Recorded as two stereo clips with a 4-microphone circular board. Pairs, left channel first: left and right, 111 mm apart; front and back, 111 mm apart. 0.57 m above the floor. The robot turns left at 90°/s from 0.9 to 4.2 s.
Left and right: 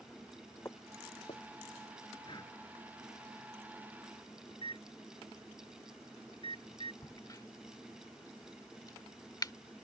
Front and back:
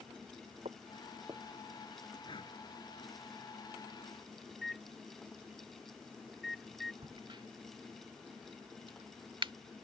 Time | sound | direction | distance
0.7 | footsteps | 155° left | ?
2.2 | breathing | 50° left | ?
4.5 | a microwave | 90° left | ?
7.0 | a crack | 145° left | ?